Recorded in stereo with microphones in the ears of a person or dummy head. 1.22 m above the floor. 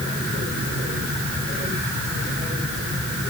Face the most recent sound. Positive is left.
No sound to turn to.